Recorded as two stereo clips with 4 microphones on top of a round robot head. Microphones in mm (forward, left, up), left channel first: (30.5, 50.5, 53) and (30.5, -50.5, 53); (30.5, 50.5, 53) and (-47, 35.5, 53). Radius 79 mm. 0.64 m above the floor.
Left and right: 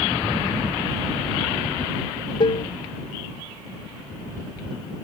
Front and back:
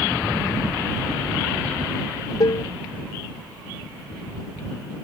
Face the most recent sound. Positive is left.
turn(degrees=50)